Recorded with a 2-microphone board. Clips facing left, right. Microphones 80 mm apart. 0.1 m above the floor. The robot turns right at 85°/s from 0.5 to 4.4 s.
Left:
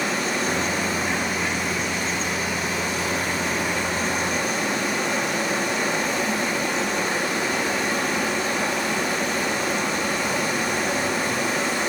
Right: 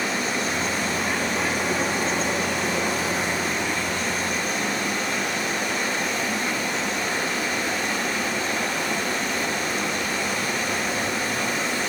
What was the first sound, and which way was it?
Running water, 105° left.